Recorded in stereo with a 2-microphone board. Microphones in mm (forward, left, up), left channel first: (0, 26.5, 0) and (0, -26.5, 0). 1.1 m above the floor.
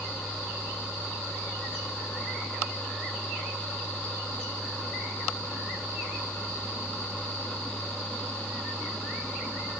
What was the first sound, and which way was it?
Only background noise.